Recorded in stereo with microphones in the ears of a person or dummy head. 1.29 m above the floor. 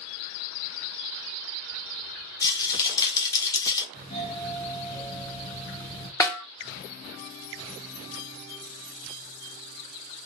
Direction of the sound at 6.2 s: 15° left (ahead or behind).